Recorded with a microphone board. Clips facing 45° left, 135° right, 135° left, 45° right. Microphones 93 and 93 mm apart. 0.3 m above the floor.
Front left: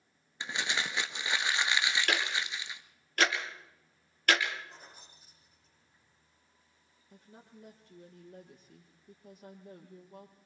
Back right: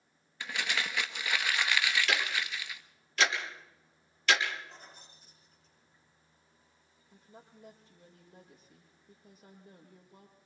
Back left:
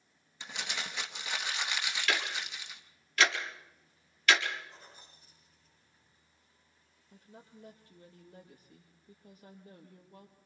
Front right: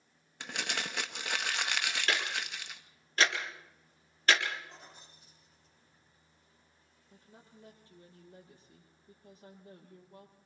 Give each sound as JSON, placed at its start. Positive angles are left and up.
{"t": 0.4, "sound": "crumpling", "azimuth_deg": -20, "distance_m": 1.1}
{"t": 2.1, "sound": "ticking", "azimuth_deg": 10, "distance_m": 4.0}
{"t": 4.7, "sound": "keys jangling", "azimuth_deg": -35, "distance_m": 10.0}
{"t": 7.1, "sound": "a woman speaking", "azimuth_deg": 20, "distance_m": 7.0}